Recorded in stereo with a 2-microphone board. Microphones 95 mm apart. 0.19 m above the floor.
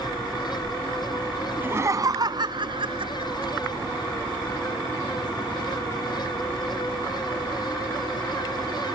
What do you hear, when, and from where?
1.6 s laughter: 20° right (ahead or behind); by 3.7 s 70° right (ahead or behind)